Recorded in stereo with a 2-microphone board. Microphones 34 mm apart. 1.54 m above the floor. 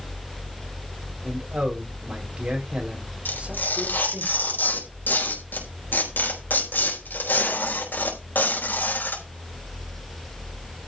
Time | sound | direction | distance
1.2 | a man speaking | 40° right (ahead or behind) | 4.5 m
3.2 | tearing paper | 75° left (ahead or behind) | 4.5 m